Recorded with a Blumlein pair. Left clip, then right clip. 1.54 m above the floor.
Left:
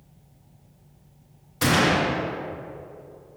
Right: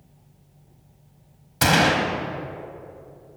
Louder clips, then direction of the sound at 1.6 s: Right 2 dB; 70° right.